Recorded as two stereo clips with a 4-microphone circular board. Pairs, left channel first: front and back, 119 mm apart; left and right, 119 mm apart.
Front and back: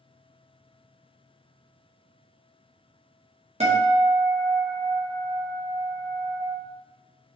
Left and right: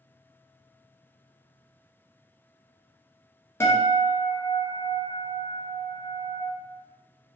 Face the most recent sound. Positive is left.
turn(degrees=160)